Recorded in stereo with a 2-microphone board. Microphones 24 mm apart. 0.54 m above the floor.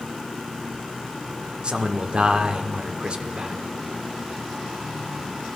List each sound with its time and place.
1.6 s a man speaking: 40° right (ahead or behind), 1.1 m